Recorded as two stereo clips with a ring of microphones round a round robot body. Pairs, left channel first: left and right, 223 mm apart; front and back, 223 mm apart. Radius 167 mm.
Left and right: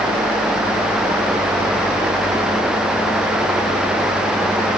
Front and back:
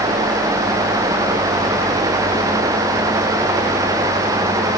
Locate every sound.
Only background noise.